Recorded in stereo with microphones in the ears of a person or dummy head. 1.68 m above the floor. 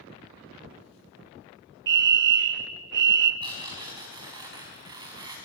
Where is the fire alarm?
50° right (ahead or behind), 0.8 m.